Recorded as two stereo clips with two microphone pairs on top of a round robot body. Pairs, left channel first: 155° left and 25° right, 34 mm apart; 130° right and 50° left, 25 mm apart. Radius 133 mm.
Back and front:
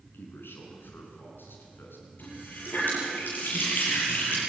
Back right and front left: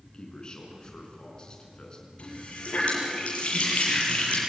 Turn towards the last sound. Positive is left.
turn(degrees=-170)